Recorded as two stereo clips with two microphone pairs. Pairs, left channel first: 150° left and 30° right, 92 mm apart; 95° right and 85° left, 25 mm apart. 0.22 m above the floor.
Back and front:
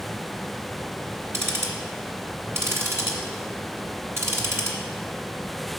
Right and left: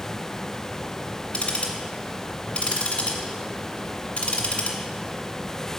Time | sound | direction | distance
1.3 | ticking | 85° right | 1.7 m